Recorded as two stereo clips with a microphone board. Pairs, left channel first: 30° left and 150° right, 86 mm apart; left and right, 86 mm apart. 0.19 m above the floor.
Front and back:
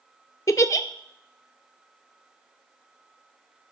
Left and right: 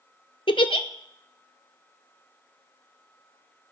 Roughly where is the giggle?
Left.